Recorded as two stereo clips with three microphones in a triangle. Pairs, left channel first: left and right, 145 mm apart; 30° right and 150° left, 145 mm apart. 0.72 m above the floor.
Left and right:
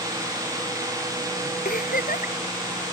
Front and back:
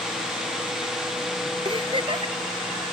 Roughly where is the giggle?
Left.